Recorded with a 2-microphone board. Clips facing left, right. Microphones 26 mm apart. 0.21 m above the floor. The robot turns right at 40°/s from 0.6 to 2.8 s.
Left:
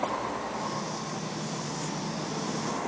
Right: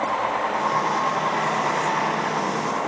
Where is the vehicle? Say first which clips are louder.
Right 8 dB; 40° right (ahead or behind); by 2.9 s 35° right (ahead or behind).